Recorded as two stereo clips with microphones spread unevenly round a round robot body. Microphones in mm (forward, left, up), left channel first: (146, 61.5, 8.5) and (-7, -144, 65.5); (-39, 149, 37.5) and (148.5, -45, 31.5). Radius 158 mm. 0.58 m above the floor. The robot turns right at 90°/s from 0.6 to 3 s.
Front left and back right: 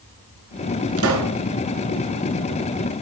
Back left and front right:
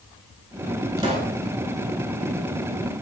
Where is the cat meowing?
No cat meowing in this recording.